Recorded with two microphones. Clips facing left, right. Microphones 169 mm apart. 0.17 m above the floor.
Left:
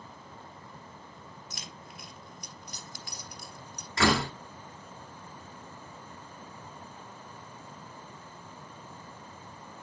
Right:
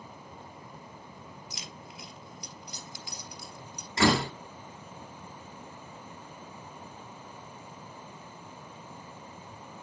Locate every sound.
1.5 s keys jangling: 50° left (ahead or behind), 2.5 m
4.0 s a door slam: 20° right (ahead or behind), 1.5 m